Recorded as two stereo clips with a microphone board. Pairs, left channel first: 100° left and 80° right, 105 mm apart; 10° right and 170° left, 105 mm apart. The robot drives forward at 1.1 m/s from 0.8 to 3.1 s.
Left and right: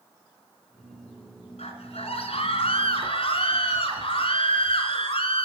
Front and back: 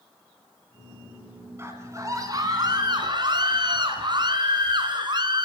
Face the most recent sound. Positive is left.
turn(degrees=125)